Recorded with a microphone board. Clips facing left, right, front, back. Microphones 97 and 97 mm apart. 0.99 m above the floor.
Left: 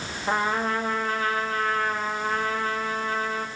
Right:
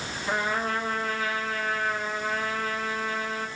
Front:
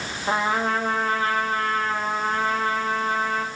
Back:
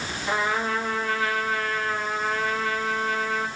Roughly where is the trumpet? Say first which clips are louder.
Left 3 dB, front 3 dB; ahead left.